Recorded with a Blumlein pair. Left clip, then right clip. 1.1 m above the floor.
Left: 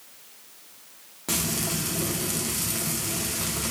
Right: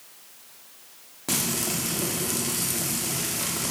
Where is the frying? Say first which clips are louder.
Right 1 dB; 5° right, 1.7 m.